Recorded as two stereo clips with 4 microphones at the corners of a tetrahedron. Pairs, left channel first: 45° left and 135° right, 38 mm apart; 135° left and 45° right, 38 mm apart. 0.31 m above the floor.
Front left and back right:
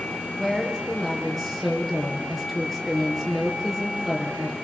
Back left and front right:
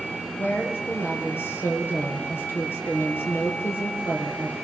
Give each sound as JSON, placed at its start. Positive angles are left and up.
{"t": 0.4, "sound": "a woman speaking", "azimuth_deg": 130, "distance_m": 5.0}